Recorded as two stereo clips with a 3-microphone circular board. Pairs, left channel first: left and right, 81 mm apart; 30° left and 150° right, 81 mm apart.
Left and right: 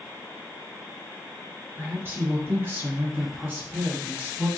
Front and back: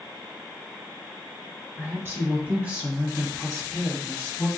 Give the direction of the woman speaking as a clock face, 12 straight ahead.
4 o'clock.